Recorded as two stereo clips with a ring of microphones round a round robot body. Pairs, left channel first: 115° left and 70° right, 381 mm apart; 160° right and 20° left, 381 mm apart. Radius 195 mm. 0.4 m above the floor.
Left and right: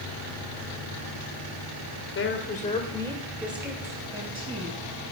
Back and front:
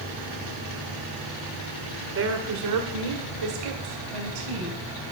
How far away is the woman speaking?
About 1.8 m.